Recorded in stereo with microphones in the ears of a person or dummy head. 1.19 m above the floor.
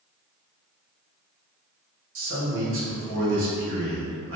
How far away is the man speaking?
About 1.3 m.